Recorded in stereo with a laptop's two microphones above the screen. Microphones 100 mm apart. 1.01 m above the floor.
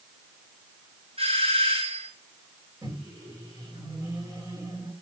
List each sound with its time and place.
1.2 s a doorbell: 80° right, 5 m
2.8 s a microwave: 40° right (ahead or behind), 4.5 m